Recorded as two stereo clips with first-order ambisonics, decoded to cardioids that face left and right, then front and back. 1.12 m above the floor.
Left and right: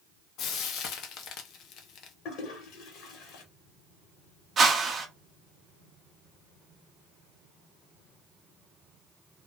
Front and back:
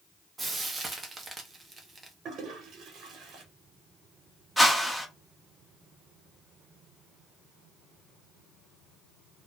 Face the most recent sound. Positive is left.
turn(degrees=-85)